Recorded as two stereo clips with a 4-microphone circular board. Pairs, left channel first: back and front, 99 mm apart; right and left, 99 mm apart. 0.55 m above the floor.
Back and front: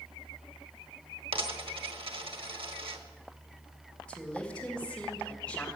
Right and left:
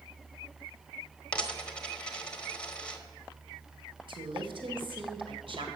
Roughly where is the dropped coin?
Ahead.